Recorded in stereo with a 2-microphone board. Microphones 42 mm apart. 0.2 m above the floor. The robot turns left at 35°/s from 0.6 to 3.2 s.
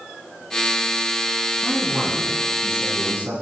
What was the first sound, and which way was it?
A man speaking, 5° right.